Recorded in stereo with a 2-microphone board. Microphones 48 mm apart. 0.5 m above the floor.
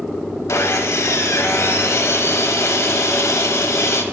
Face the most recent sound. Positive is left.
turn(degrees=75)  # may be behind; listen again after turning